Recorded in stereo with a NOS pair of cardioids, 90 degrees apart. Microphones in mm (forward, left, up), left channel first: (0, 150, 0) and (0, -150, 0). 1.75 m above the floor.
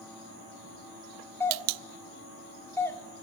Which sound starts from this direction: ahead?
A doorbell, at 1.4 s.